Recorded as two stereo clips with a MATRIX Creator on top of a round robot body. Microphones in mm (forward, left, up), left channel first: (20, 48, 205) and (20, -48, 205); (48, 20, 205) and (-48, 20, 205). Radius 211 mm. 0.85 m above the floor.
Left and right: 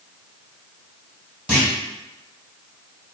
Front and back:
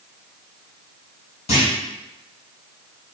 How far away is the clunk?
About 1.8 m.